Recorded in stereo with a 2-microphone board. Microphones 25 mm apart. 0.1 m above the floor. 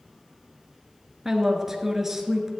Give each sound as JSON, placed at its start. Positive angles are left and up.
{"t": 1.2, "sound": "a woman speaking", "side_deg": -15, "distance_m": 1.2}